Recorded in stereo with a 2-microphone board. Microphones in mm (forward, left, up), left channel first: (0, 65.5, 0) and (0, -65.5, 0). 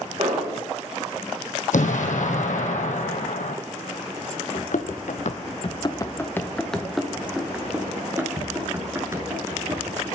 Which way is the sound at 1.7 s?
75° left (ahead or behind).